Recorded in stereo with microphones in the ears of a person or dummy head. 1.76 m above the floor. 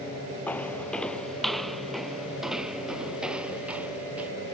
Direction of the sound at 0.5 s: 10° left (ahead or behind).